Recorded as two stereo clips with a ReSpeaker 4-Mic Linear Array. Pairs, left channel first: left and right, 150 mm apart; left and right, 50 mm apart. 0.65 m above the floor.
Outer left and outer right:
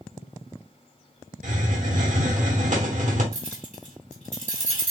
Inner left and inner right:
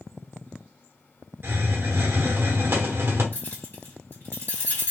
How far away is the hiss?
About 0.9 m.